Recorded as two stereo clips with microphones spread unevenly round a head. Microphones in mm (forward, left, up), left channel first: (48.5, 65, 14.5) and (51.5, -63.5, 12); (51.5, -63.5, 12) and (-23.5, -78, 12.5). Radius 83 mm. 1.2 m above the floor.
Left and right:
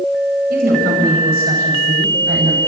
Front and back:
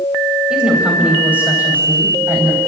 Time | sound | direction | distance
0.5 | a woman speaking | 90° right | 6.5 m